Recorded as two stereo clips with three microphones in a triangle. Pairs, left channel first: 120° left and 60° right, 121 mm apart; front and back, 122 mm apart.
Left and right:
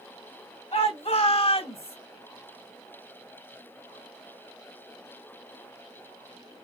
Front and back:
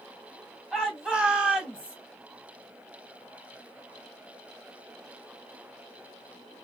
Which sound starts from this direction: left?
A shout, at 0.7 s.